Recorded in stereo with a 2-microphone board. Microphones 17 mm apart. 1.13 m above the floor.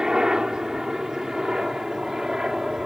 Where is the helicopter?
45° right (ahead or behind); by 2.9 s 40° right (ahead or behind).